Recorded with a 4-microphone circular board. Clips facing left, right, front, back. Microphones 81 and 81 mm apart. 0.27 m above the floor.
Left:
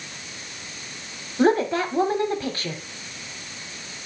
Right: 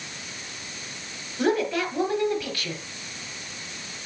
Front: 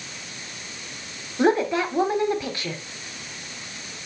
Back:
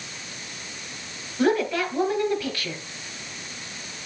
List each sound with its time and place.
1.4 s a woman speaking: 55° left, 1.2 m